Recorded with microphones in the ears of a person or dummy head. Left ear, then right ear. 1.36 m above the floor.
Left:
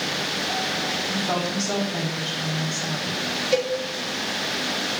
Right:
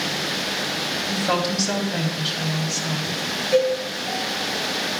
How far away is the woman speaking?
About 2.5 m.